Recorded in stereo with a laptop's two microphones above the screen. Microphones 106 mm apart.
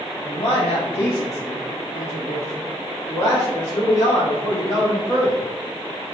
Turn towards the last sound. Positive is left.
turn(degrees=50)  # may be behind; listen again after turning